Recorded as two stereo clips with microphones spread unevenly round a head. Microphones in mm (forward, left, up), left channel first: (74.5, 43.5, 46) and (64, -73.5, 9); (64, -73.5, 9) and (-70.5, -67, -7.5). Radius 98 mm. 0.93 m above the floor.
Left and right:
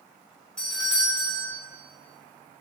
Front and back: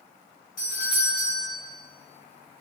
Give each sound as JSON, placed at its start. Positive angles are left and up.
{"t": 0.6, "sound": "a doorbell", "azimuth_deg": 0, "distance_m": 7.5}